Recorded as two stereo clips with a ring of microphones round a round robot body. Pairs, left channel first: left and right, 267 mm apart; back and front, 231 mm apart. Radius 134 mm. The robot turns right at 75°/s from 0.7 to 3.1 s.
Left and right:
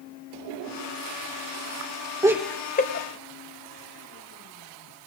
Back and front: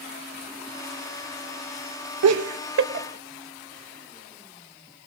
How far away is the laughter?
About 1.3 m.